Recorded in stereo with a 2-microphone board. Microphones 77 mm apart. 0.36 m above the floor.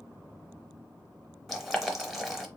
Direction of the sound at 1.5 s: Centre (ahead or behind).